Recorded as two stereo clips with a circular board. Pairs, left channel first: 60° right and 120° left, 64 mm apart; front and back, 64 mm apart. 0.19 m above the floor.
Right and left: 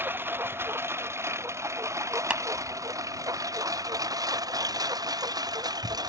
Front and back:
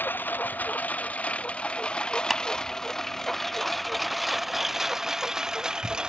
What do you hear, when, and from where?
0.0 s a lawn mower: 60° left; by 6.1 s 100° left
2.3 s a clap: 100° left